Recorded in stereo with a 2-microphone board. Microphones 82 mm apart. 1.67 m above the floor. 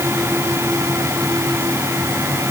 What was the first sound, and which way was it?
Only background noise.